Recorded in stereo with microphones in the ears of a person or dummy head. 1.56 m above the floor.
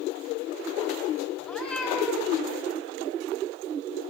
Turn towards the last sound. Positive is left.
turn(degrees=5)  # may be behind; listen again after turning